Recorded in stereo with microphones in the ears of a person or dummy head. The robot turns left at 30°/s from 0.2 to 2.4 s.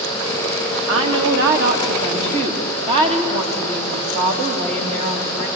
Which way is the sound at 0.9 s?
100° right.